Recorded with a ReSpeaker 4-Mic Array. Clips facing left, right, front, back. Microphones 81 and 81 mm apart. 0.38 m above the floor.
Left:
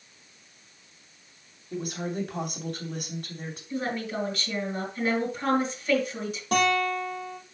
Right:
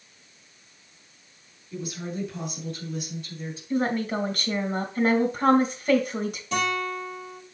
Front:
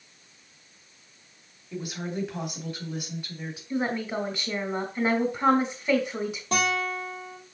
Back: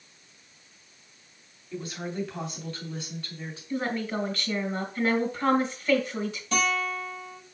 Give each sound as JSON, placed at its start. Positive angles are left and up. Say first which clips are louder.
{"t": 1.7, "sound": "a woman speaking", "louder": "left 2 dB, front 1 dB", "azimuth_deg": 70, "distance_m": 2.5}
{"t": 3.7, "sound": "a woman speaking", "louder": "right 5 dB, front 1 dB", "azimuth_deg": -70, "distance_m": 2.5}
{"t": 6.5, "sound": "a guitar", "louder": "left 4 dB, even", "azimuth_deg": 50, "distance_m": 4.5}